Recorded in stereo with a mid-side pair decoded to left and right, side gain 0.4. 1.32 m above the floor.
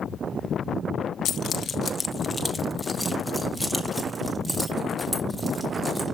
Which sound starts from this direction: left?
Keys jangling, at 1.2 s.